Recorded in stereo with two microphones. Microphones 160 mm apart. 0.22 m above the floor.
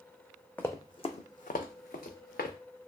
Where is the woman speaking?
I don't hear a woman speaking.